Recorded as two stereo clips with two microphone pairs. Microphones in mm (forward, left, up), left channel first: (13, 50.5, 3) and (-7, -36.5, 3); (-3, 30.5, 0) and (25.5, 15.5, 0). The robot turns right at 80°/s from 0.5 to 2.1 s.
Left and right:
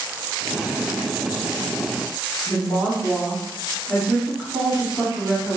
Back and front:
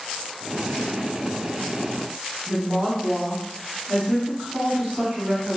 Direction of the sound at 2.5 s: 15° right.